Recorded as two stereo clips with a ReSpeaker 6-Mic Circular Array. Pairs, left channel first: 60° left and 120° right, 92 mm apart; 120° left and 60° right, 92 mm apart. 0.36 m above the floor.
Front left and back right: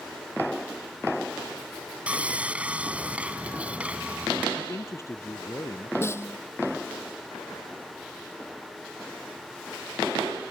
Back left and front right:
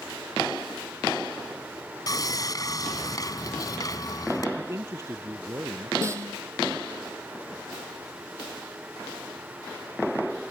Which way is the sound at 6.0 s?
Straight ahead.